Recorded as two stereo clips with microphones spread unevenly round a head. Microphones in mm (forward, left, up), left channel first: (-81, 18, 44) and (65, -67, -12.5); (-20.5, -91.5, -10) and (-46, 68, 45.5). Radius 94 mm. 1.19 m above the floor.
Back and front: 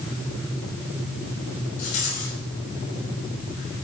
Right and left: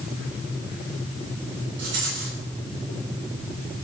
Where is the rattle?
115° left, 6 m.